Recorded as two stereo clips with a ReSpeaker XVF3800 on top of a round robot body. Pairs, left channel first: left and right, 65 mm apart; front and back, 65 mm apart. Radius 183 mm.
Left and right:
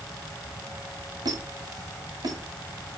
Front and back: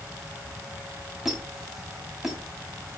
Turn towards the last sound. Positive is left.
turn(degrees=-95)